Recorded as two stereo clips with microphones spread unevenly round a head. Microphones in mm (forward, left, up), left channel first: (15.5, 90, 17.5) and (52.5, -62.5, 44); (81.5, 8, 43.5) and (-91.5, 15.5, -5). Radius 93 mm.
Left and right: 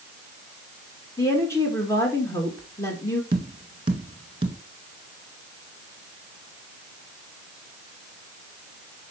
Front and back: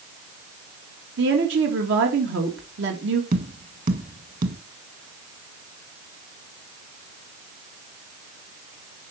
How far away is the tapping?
About 1.5 m.